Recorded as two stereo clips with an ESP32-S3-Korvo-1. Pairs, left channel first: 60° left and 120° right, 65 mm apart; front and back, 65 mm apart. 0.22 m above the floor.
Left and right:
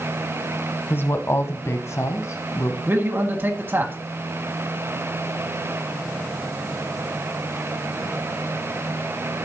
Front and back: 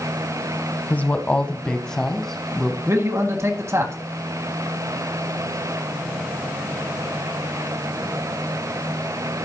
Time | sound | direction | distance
0.9 | a woman speaking | 40° left | 1.1 m
2.9 | a man speaking | 165° right | 2.0 m